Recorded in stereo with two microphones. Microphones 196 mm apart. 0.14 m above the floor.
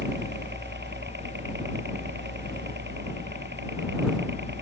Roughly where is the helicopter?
Right.